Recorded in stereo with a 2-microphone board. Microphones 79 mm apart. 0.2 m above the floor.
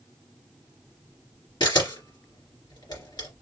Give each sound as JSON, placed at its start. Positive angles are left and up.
{"t": 1.6, "sound": "a camera shutter", "side_deg": 65, "distance_m": 2.5}